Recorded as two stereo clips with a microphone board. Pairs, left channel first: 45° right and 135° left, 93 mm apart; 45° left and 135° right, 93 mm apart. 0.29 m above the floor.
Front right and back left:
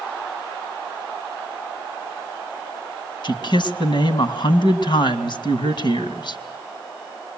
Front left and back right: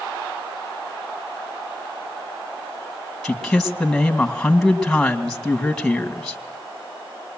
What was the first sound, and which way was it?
A man speaking, 40° right.